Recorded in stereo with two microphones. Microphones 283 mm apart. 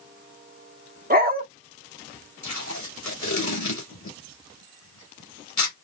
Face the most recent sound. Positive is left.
turn(degrees=80)